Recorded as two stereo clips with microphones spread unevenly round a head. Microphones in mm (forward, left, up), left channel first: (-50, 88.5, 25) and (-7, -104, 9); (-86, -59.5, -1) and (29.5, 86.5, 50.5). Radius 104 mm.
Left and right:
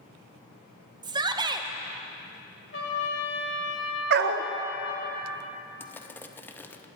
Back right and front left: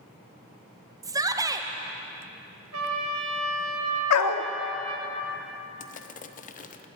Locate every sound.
1.0 s a shout: 30° right, 0.8 m
2.7 s a trumpet: 60° left, 1.9 m
4.1 s a dog barking: 110° right, 0.7 m
5.8 s crushing: 175° right, 0.7 m